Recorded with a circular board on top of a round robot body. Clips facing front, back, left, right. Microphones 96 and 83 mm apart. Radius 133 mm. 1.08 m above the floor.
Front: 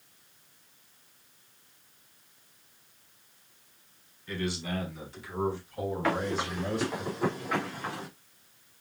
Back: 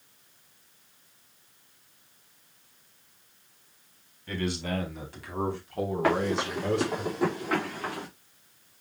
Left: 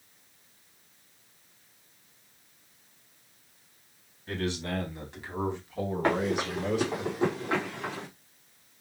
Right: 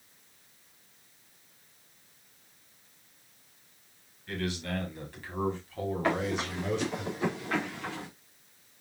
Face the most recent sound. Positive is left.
turn(degrees=155)